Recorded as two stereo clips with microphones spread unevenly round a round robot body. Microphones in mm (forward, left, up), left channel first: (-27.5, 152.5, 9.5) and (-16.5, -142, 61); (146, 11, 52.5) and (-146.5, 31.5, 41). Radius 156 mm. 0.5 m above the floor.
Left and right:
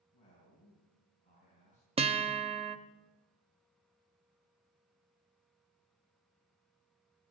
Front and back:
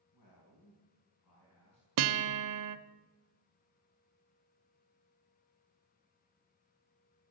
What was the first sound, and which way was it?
A man speaking, 20° left.